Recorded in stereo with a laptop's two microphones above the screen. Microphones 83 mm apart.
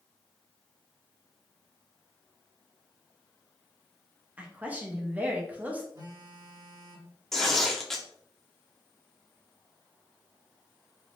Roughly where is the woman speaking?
Centre.